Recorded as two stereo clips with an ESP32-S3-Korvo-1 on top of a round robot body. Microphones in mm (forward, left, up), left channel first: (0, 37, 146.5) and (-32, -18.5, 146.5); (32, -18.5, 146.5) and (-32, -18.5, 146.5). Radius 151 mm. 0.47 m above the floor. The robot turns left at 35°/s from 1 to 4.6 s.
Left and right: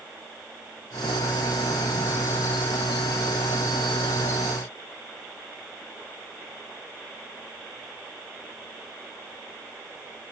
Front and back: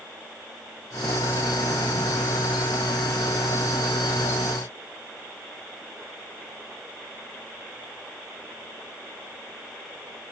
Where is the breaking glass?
No breaking glass in this recording.